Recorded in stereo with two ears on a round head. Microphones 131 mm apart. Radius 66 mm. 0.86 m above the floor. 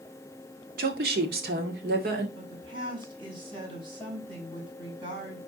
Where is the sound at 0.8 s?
70° right (ahead or behind), 2.0 m.